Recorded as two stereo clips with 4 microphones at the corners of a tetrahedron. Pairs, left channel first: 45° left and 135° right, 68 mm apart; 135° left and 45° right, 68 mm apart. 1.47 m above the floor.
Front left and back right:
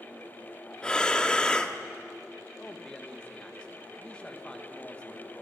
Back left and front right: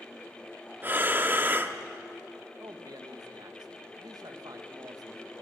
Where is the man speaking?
30° right, 1.8 m.